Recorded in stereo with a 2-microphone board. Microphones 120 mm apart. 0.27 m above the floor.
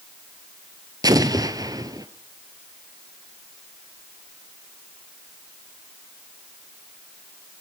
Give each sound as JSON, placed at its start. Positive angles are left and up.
{"t": 1.0, "sound": "an explosion", "side_deg": -30, "distance_m": 1.3}